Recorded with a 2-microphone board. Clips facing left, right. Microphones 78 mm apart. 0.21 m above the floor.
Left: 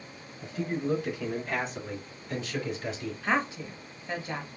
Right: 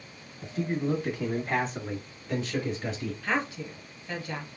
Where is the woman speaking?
20° left (ahead or behind), 1.3 m.